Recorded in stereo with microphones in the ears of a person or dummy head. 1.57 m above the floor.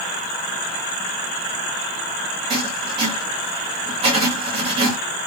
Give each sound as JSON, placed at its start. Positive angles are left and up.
{"t": 2.5, "sound": "writing", "side_deg": -35, "distance_m": 1.9}